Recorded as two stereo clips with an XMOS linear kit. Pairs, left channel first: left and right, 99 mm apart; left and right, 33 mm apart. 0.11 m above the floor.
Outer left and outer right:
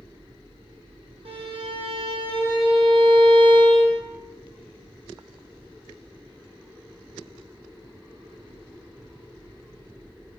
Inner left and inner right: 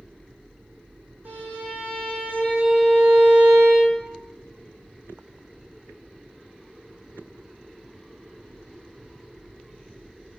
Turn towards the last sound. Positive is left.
turn(degrees=-70)  # may be behind; listen again after turning